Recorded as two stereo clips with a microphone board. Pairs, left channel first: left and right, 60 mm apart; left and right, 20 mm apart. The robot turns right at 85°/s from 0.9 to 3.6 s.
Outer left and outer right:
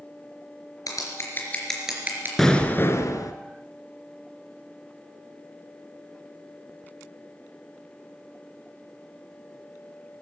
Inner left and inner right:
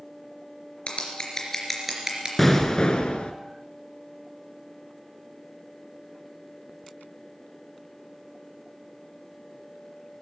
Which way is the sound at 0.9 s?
60° left (ahead or behind).